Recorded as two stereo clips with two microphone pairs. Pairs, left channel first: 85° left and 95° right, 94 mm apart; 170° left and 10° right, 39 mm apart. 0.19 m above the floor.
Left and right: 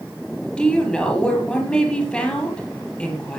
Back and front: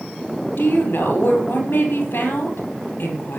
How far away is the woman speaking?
About 6.5 m.